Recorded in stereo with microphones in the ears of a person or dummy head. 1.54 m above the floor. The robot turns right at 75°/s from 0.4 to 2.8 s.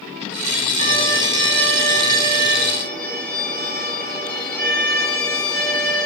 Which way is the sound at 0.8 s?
140° right.